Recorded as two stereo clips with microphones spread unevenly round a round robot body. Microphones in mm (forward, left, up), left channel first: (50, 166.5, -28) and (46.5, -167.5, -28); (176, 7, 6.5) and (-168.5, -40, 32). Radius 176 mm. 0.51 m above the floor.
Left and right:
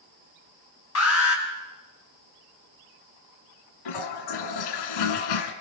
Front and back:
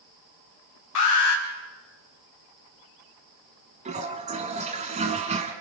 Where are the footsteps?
No footsteps in this recording.